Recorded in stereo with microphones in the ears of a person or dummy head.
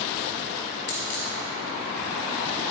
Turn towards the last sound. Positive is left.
turn(degrees=45)  # may be behind; listen again after turning